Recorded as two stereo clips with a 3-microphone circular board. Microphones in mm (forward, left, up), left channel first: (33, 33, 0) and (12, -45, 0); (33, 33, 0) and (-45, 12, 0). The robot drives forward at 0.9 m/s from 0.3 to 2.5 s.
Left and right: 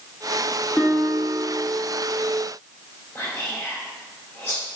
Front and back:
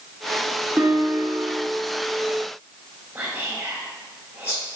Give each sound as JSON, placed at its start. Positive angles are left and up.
{"t": 0.8, "sound": "a guitar", "azimuth_deg": 155, "distance_m": 1.4}
{"t": 3.1, "sound": "whispering", "azimuth_deg": 145, "distance_m": 2.0}